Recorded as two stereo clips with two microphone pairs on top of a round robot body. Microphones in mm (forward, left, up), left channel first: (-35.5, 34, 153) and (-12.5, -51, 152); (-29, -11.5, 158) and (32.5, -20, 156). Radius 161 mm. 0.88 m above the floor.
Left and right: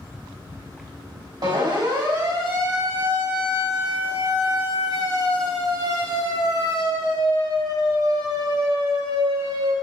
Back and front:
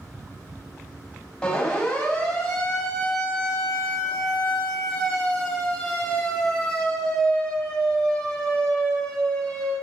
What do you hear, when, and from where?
1.4 s a siren: 110° right, 6 m; by 9.8 s 105° right, 10.5 m